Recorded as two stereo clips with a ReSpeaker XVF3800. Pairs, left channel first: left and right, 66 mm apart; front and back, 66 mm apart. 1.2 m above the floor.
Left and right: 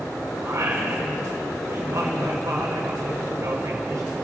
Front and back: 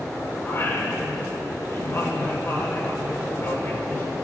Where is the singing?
45° right, 5 m.